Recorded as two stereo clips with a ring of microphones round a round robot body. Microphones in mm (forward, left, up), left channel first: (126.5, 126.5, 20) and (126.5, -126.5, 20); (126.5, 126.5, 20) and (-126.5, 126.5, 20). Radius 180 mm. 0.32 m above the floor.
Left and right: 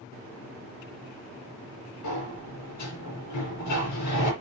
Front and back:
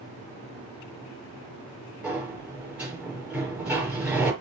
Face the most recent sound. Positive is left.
turn(degrees=95)